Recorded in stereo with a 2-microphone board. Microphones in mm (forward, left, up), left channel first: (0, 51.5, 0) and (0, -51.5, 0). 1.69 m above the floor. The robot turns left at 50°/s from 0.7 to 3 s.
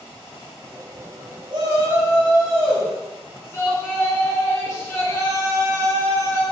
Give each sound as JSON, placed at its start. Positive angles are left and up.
{"t": 1.5, "sound": "a shout", "azimuth_deg": -130, "distance_m": 1.1}